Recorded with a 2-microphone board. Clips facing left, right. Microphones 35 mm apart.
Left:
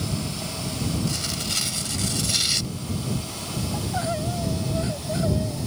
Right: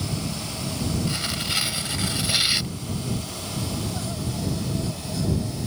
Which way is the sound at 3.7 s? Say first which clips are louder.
Left 4 dB; 45° left (ahead or behind).